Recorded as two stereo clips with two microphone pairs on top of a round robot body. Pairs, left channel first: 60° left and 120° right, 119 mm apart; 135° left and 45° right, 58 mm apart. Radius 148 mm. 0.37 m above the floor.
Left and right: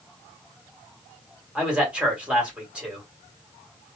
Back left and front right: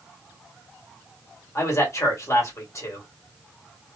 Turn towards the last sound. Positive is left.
turn(degrees=165)